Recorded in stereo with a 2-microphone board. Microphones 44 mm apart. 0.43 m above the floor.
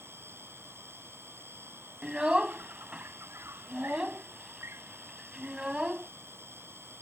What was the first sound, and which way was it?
An insect, 70° right (ahead or behind).